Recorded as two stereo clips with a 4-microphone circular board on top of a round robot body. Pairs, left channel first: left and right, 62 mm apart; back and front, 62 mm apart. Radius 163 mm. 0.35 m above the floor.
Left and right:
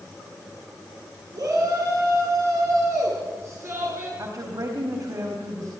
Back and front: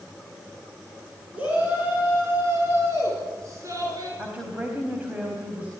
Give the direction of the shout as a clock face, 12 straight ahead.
2 o'clock.